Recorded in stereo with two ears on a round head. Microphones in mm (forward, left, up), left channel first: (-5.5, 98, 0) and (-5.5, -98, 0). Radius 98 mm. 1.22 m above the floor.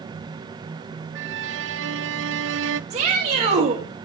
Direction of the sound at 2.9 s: 30° right (ahead or behind).